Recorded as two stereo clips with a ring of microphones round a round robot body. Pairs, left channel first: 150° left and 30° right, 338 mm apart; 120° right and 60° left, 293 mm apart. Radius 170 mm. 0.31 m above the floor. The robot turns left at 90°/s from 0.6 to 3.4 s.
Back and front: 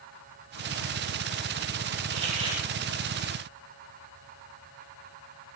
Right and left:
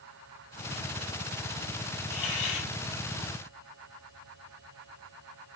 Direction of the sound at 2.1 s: 75° right.